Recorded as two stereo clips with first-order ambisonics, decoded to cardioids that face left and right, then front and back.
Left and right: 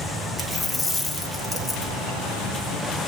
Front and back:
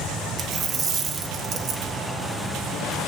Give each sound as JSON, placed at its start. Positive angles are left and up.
{"t": 0.4, "sound": "a dropped coin", "azimuth_deg": 170, "distance_m": 1.0}